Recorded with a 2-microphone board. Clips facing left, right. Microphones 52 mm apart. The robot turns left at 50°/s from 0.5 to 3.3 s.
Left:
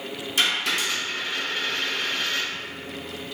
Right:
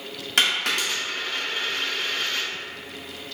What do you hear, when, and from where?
0.4 s a dropped coin: 70° right (ahead or behind), 1.7 m; by 2.5 s 20° left (ahead or behind), 1.7 m